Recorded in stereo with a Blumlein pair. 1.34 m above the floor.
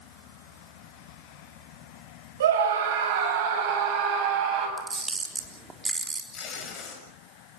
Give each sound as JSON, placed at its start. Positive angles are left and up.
{"t": 2.4, "sound": "a scream", "azimuth_deg": -60, "distance_m": 6.5}
{"t": 4.8, "sound": "a camera shutter", "azimuth_deg": -10, "distance_m": 3.5}
{"t": 6.3, "sound": "tape being pulled", "azimuth_deg": 30, "distance_m": 7.0}